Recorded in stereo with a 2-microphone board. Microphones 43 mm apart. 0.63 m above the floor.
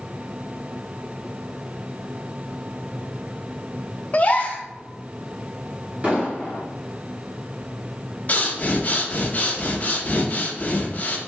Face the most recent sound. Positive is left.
turn(degrees=40)  # may be behind; listen again after turning